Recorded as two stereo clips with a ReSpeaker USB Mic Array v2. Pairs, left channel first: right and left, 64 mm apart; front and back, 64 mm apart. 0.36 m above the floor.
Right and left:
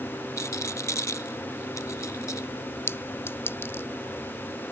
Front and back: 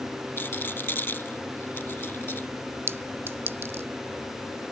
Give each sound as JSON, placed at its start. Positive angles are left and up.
{"t": 0.4, "sound": "a rattle", "azimuth_deg": -55}
{"t": 2.9, "sound": "a clink", "azimuth_deg": -135}